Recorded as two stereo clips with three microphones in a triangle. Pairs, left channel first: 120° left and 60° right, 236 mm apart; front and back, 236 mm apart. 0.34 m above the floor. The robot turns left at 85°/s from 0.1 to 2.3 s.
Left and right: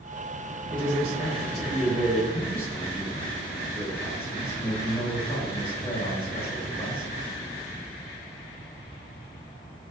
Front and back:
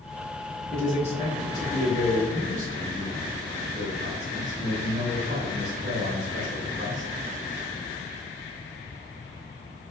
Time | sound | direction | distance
0.7 | a man speaking | 75° right | 0.9 m